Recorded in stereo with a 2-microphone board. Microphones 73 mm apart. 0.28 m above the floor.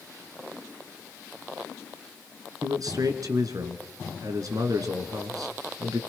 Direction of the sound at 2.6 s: 60° right (ahead or behind).